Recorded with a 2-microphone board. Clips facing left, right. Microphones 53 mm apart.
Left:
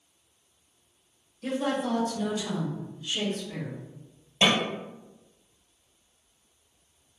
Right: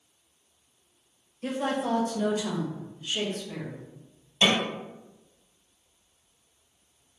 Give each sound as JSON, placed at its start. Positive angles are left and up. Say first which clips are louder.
{"t": 1.4, "sound": "a woman speaking", "louder": "even", "side_deg": -30, "distance_m": 1.0}
{"t": 4.4, "sound": "a snare drum", "louder": "even", "side_deg": 35, "distance_m": 1.6}